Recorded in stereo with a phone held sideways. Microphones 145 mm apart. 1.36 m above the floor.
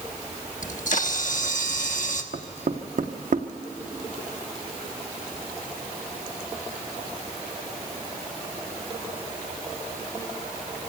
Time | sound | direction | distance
0.6 | a camera shutter | 60° left (ahead or behind) | 1.2 m
2.3 | knocking | 70° right (ahead or behind) | 0.8 m